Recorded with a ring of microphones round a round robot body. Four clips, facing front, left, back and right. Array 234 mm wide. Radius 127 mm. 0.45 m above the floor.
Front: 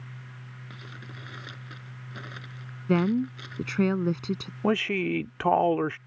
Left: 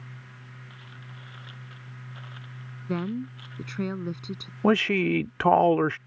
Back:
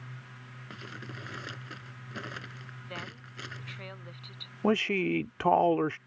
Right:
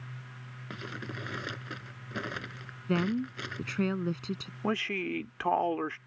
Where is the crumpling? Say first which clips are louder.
Right 7 dB, back 3 dB; 100° right.